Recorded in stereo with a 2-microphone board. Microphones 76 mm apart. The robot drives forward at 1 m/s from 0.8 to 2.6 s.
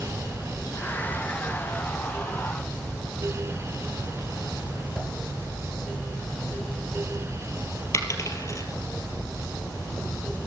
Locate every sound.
5.0 s a whoosh: centre (ahead or behind), 3 m
7.9 s a dropped coin: 45° left (ahead or behind), 2.5 m